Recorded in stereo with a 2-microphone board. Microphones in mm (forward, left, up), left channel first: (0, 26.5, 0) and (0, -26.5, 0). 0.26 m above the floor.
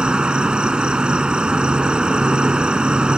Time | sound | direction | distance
0.0 | an insect | 20° right (ahead or behind) | ?